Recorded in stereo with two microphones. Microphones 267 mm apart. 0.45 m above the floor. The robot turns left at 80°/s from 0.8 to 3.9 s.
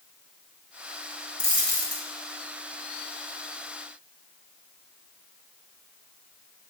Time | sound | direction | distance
1.4 | a dropped coin | 160° left | 0.7 m